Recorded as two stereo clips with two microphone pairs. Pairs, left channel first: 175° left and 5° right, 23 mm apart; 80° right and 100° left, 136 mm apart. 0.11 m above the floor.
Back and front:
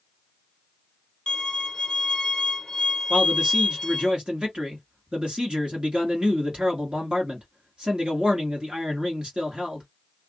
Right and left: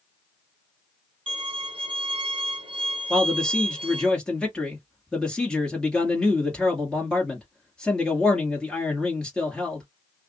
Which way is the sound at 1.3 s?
115° left.